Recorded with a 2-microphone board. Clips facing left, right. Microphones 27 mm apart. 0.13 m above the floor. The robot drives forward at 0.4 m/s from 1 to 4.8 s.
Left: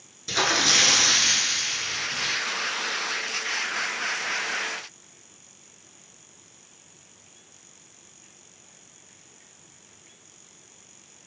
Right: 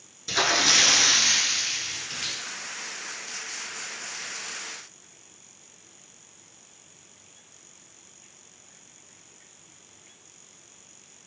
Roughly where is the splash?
Centre.